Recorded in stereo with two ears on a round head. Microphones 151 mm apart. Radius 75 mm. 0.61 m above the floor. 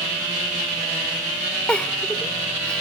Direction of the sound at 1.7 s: 5° left (ahead or behind).